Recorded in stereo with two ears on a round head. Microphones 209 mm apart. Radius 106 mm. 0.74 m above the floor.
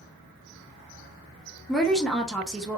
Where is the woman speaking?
Centre (ahead or behind), 0.6 m.